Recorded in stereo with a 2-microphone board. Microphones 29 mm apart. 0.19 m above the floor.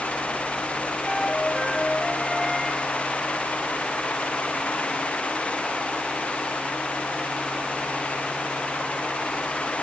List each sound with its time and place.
1.0 s a flute: centre (ahead or behind), 1.5 m